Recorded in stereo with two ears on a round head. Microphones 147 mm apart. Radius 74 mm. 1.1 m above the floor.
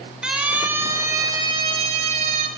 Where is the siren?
5° right (ahead or behind), 4.5 m; by 2.5 s 45° right (ahead or behind), 4 m.